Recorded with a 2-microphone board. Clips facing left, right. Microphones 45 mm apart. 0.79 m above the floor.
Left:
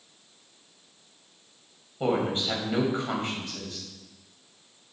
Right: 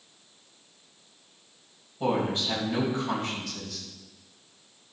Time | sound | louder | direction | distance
2.0 | a woman speaking | left 1 dB | 25° left (ahead or behind) | 3.5 m